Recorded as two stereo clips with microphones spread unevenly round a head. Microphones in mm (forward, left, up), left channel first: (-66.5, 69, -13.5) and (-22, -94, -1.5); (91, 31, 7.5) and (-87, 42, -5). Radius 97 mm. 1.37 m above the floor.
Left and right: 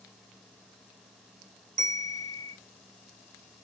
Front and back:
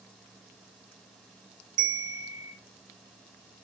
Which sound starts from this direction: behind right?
A bell, at 1.8 s.